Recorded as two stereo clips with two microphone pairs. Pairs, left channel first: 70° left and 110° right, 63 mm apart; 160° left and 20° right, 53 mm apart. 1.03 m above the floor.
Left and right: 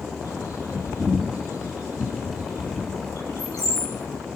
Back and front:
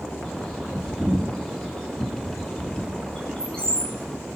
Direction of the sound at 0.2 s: 85° left.